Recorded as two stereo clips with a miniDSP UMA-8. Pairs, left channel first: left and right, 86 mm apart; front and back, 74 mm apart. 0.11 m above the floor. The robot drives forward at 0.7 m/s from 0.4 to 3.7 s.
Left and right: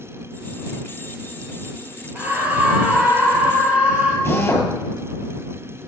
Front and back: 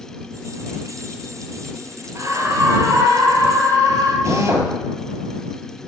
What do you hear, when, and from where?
2.1 s a scream: 155° right, 2 m; by 4.2 s 165° right, 3 m
4.2 s a drill: 150° left, 2 m